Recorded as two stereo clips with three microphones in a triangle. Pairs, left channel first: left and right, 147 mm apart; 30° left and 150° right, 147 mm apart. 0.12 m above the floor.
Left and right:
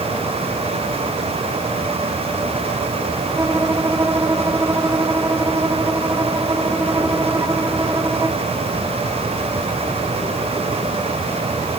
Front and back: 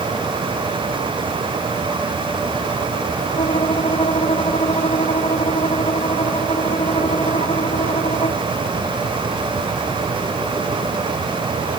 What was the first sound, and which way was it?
A violin, 20° right.